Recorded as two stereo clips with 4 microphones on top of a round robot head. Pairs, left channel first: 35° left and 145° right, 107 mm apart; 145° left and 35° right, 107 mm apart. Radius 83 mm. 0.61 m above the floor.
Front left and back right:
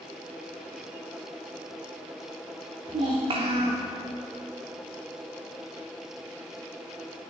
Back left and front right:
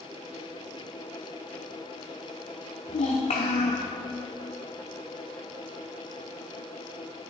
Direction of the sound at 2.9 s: 175° left.